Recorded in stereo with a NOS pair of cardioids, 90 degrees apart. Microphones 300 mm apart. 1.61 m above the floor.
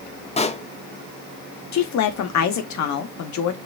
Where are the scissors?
No scissors in this recording.